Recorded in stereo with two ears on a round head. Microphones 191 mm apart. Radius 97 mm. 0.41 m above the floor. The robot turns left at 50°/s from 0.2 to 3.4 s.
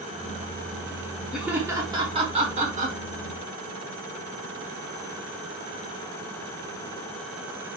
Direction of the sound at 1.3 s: 5° right (ahead or behind).